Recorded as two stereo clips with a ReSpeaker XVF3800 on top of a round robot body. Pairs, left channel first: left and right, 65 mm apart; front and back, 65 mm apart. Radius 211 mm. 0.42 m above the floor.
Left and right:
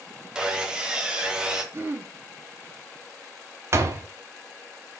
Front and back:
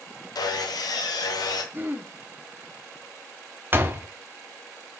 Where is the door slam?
125° right, 1.4 m.